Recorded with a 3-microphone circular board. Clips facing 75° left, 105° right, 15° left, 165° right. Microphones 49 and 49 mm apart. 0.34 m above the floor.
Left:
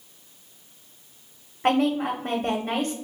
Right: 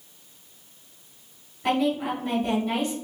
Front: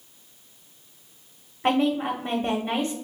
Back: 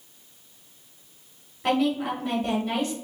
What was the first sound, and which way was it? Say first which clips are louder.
A woman speaking: left 2 dB, front 1 dB; 65° left.